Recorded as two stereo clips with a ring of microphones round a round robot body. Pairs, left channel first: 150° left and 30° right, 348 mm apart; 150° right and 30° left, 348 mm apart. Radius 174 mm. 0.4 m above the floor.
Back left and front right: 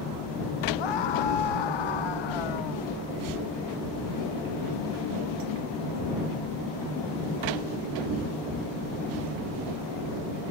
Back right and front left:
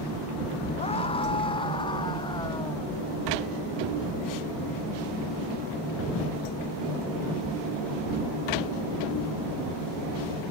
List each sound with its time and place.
0.8 s a scream: 135° left; by 2.9 s 130° left